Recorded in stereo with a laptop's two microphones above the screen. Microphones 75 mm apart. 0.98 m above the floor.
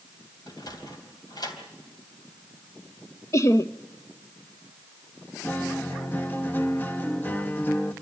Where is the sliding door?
65° left (ahead or behind), 3 m.